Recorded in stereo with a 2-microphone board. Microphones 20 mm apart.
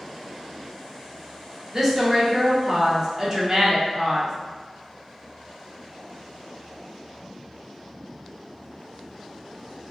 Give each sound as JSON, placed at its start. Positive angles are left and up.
{"t": 1.7, "sound": "a woman speaking", "side_deg": -30, "distance_m": 0.9}